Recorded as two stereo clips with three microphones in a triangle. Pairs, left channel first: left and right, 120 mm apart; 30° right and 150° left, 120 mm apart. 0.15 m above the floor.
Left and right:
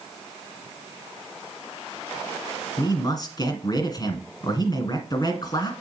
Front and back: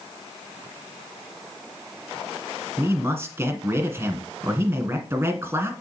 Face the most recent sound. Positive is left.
turn(degrees=95)